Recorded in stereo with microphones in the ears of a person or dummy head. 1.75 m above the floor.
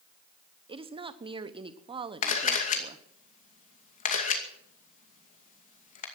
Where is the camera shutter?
45° left (ahead or behind), 2.5 m.